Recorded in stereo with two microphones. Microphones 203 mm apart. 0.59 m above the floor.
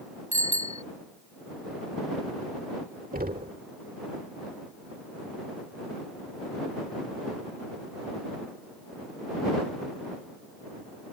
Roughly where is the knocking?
Right.